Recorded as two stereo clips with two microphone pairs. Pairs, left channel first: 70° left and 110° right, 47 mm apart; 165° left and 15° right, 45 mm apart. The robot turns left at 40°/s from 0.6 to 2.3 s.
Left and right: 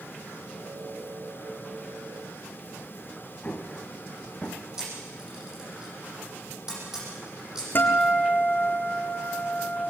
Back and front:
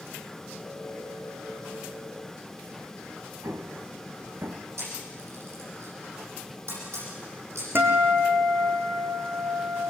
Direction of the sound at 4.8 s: 35° right.